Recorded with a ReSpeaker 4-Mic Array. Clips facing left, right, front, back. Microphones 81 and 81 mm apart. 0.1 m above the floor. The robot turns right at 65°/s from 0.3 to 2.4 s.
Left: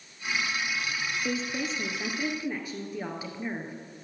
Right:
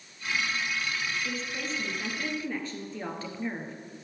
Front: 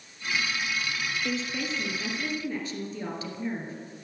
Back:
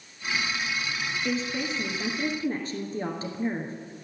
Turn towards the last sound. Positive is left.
turn(degrees=160)